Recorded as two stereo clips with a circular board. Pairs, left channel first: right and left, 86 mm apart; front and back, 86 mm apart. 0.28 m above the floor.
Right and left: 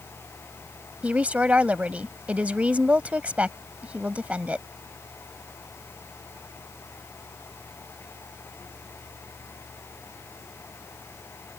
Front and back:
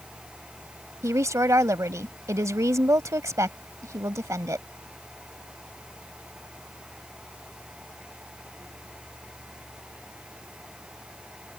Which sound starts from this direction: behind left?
A woman speaking, at 1.0 s.